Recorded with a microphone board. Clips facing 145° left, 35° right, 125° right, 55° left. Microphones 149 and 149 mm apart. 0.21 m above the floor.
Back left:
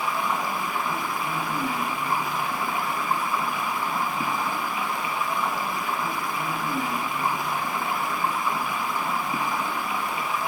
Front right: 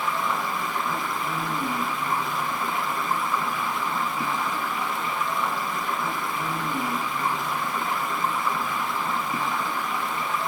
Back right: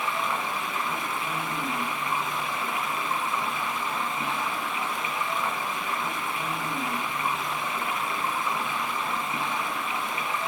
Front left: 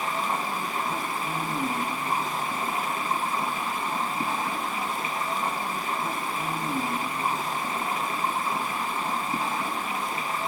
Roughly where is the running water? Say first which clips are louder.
Even, front left 1 dB; left.